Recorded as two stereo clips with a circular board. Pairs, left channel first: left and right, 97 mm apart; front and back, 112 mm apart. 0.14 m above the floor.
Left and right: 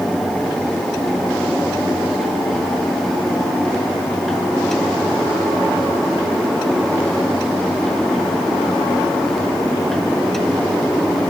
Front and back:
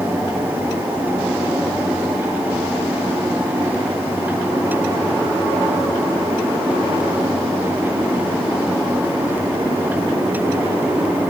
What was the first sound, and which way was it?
Only background noise.